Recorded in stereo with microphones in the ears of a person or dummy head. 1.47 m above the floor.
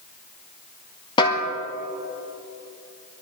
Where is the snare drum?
35° left (ahead or behind), 1.9 m.